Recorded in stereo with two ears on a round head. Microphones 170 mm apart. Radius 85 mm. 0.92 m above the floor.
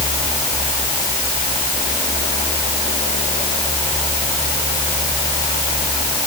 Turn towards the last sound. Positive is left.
No sound to turn to.